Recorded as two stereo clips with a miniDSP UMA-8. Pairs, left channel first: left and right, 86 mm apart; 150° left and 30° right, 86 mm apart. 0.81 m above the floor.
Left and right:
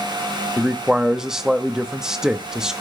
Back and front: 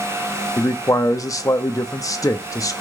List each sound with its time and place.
0.6 s a man speaking: 170° right, 0.9 m